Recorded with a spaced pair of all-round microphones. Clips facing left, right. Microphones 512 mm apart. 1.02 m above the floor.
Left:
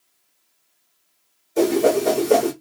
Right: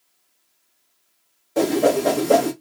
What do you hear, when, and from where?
1.6 s a whoosh: 80° right, 1.3 m